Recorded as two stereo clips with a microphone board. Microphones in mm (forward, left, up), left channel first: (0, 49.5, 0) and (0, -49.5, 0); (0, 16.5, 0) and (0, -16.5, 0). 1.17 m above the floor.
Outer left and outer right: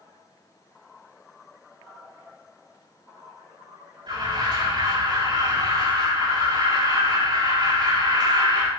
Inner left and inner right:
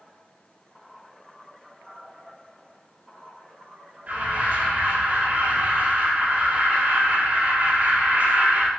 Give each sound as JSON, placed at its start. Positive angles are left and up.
{"t": 4.1, "sound": "an alarm", "side_deg": -55, "distance_m": 6.5}